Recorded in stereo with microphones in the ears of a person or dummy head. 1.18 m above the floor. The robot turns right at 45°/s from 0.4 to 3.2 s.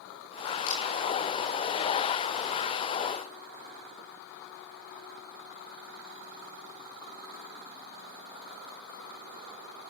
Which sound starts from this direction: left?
A camera shutter, at 0.7 s.